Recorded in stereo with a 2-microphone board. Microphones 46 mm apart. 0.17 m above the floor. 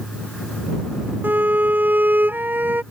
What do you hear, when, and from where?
1.2 s a violin: 40° right (ahead or behind)